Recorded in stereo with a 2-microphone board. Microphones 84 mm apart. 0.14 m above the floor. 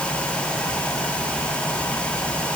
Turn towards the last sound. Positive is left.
No sound to turn to.